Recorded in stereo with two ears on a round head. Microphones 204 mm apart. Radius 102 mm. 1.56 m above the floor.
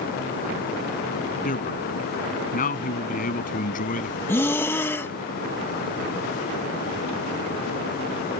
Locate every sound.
1.4 s a man speaking: 40° left (ahead or behind); by 4.2 s 35° left (ahead or behind)
4.3 s breathing: 10° left (ahead or behind)